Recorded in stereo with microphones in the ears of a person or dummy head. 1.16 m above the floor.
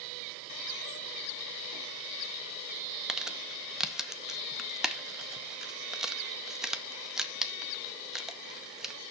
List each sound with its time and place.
3.1 s crumpling: centre (ahead or behind), 0.6 m